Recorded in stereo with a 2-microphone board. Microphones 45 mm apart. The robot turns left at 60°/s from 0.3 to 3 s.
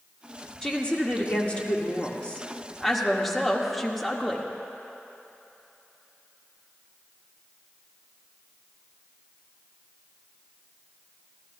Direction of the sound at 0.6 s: 15° left (ahead or behind).